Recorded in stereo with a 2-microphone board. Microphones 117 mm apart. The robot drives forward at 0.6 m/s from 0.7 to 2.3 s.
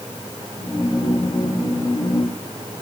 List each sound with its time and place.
Only background noise.